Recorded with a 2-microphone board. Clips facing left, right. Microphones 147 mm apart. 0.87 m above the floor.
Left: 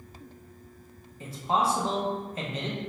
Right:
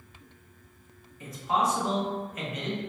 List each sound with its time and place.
1.2 s a man speaking: 30° left (ahead or behind), 0.6 m